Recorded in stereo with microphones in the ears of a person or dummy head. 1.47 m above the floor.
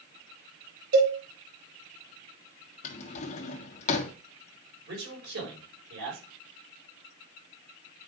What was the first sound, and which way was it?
A cowbell, 60° right (ahead or behind).